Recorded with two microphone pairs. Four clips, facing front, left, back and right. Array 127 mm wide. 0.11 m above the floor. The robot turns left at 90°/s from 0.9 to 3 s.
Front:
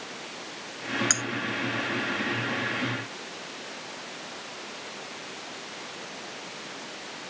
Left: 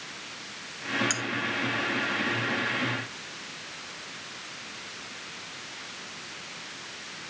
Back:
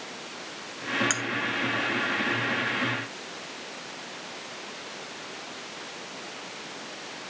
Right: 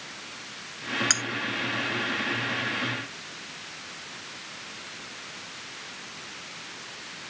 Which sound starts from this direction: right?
Cutlery clinking, at 1.1 s.